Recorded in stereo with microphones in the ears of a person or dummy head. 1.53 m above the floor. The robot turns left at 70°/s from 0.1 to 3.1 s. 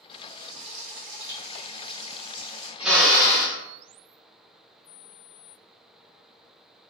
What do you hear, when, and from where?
0.1 s frying: 15° right, 1.2 m; by 2.7 s 165° left, 1.2 m
2.8 s a drill: 10° right (ahead or behind), 0.5 m; by 3.6 s 10° left (ahead or behind), 0.5 m